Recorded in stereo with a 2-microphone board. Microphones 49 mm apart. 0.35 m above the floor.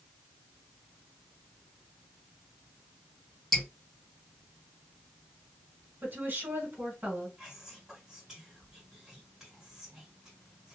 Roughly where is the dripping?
Centre.